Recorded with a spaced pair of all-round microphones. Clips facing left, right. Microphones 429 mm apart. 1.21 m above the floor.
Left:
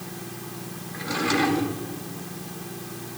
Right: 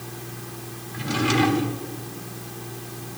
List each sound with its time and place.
0.9 s a drawer: 50° right (ahead or behind), 1.2 m